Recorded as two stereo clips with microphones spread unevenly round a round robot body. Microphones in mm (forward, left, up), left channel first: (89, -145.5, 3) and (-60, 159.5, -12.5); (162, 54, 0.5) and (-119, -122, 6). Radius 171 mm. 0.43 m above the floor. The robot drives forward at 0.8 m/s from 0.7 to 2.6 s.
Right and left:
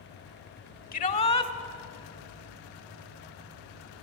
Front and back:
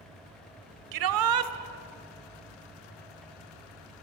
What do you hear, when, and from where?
0.9 s a shout: 130° right, 1.6 m; by 1.5 s 140° right, 1.9 m